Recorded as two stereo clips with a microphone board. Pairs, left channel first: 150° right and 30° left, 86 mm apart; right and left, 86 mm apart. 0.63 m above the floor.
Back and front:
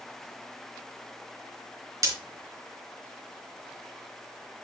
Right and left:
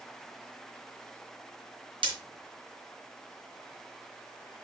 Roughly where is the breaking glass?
Left.